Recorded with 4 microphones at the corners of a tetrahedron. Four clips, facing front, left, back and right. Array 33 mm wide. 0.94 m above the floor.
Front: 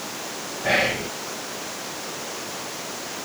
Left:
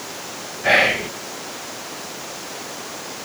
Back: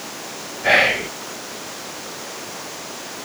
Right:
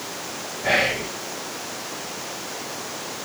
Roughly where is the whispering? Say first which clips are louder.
Left 5 dB, back 6 dB; behind left.